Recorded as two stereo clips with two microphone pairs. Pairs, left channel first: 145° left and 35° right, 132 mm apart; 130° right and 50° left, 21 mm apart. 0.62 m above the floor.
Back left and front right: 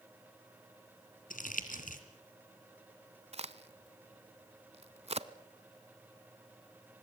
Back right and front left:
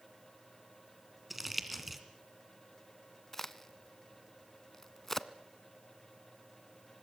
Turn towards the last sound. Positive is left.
turn(degrees=-60)